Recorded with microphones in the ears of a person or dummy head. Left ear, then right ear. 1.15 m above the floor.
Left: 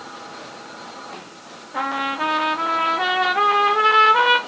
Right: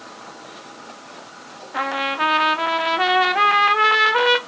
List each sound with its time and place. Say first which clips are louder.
1.7 s a trumpet: right 1 dB; 25° right (ahead or behind), 0.5 m